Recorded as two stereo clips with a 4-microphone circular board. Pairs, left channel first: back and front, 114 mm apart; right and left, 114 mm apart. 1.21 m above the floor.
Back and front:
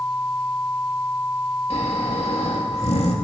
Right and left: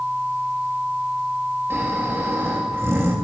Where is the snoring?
155° left, 2.5 m.